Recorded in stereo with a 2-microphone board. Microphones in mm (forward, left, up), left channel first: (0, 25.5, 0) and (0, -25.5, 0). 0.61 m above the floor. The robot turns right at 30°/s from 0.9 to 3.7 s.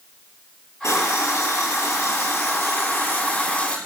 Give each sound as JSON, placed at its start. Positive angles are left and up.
{"t": 0.8, "sound": "a running tap", "azimuth_deg": 75, "distance_m": 8.5}